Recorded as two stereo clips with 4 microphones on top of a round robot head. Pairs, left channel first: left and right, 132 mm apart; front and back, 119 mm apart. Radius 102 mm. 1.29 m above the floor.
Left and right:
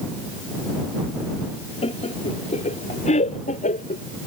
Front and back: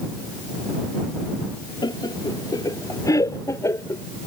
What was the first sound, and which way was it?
Laughter, 50° left.